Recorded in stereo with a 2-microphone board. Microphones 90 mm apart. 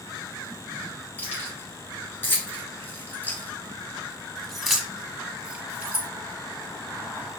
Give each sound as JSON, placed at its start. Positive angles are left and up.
{"t": 1.2, "sound": "keys jangling", "side_deg": 25, "distance_m": 2.5}